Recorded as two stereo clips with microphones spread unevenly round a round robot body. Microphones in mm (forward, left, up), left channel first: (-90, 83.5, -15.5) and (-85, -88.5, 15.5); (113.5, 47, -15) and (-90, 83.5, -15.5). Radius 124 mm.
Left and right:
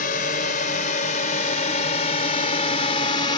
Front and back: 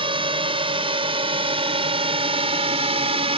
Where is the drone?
110° left; by 3.4 s 125° left.